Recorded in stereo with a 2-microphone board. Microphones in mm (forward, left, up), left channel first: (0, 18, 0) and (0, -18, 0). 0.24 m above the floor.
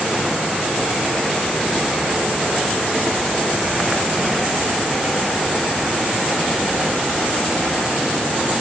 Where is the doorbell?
I don't hear a doorbell.